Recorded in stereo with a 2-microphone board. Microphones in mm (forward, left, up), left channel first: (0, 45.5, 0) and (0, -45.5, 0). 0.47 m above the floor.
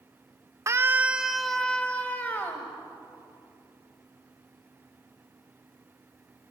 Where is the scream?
35° right (ahead or behind), 1.0 m; by 2.7 s 25° left (ahead or behind), 2.5 m.